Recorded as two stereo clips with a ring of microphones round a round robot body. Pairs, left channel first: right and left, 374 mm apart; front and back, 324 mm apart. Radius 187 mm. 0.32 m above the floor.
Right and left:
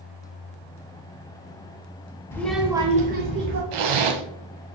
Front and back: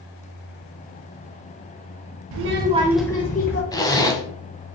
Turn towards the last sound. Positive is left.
turn(degrees=80)